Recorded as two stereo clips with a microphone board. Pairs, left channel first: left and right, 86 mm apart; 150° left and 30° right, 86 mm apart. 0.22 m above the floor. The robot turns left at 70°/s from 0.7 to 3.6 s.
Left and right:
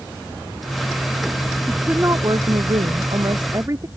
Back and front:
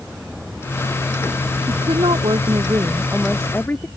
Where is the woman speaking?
5° right; by 3.9 s 140° right.